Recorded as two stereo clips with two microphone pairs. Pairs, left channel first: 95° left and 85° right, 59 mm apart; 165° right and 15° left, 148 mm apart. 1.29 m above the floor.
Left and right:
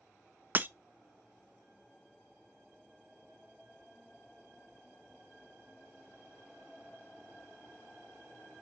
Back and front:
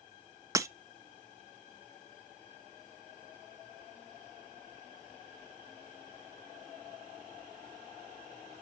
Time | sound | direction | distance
0.6 | breaking glass | 45° right | 0.6 m